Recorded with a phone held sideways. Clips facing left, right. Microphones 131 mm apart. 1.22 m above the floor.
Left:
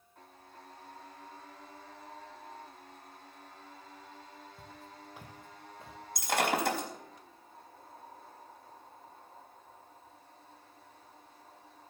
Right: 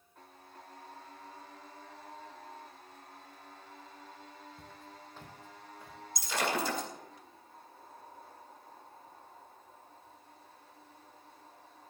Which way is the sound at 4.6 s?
Centre (ahead or behind).